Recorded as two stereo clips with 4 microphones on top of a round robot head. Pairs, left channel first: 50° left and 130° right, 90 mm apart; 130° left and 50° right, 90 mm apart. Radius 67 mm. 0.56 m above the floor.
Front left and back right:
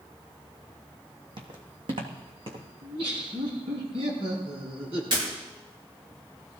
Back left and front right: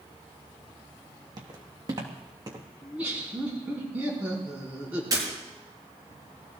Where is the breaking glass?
100° right, 7.5 m.